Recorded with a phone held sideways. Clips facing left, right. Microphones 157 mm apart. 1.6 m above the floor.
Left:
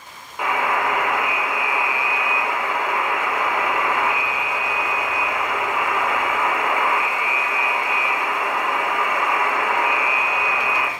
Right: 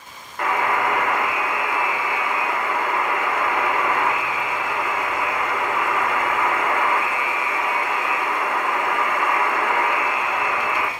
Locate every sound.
0.4 s a buzzer: 5° left (ahead or behind), 0.9 m